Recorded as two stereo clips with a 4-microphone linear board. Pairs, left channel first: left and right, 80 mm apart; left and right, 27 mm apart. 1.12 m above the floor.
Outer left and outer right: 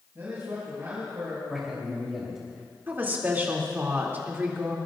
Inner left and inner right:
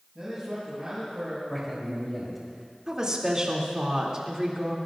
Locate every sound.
0.1 s a man speaking: 30° right (ahead or behind), 6.5 m
1.5 s a man speaking: 5° right (ahead or behind), 3 m
2.9 s a woman speaking: 25° right (ahead or behind), 2.5 m